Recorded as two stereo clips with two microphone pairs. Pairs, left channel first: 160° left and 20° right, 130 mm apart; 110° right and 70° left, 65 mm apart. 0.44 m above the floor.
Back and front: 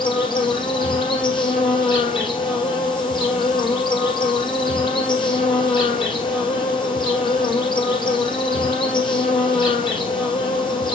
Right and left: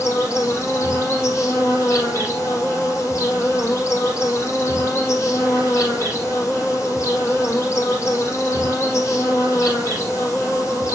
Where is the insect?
150° right, 4 m.